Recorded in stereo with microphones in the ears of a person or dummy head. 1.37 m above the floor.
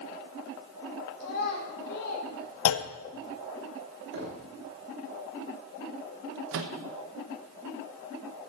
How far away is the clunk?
About 0.7 m.